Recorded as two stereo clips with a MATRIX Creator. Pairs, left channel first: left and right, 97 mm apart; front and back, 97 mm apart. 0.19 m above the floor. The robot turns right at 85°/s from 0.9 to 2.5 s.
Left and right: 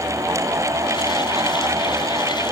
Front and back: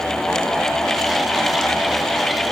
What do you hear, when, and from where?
Only background noise.